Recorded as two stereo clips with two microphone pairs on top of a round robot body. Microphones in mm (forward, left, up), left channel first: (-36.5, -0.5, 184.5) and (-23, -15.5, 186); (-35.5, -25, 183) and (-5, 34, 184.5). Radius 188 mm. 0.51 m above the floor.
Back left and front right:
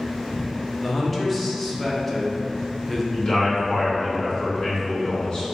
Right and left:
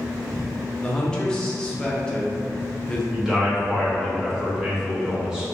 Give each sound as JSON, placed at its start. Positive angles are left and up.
{"t": 0.8, "sound": "a man speaking", "azimuth_deg": -170, "distance_m": 1.0}
{"t": 3.1, "sound": "a man speaking", "azimuth_deg": 140, "distance_m": 1.5}